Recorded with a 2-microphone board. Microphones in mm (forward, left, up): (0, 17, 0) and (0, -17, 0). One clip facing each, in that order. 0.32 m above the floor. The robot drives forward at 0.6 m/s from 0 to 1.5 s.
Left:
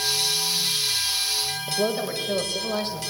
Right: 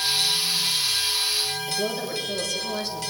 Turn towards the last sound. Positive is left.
turn(degrees=40)  # may be behind; listen again after turning